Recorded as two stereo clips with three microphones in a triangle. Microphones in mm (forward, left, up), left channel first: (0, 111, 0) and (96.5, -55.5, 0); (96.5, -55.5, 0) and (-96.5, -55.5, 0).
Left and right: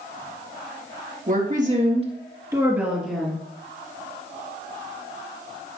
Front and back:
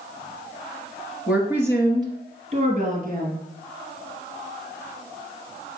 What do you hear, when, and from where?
1.3 s a woman speaking: 95° right, 3 m; by 3.4 s 160° right, 2.5 m